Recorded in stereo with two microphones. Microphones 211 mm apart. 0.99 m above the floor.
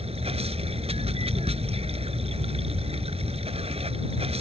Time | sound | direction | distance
0.0 | running water | 30° right (ahead or behind) | ?